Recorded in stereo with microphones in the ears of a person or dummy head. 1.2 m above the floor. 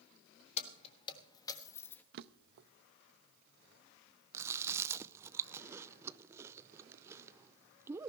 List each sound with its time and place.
0.6 s keys jangling: 35° left (ahead or behind), 1.6 m; by 2.0 s 10° left (ahead or behind), 1.3 m
2.1 s a drawer: 55° right (ahead or behind), 0.6 m
4.3 s chewing: 15° right (ahead or behind), 0.5 m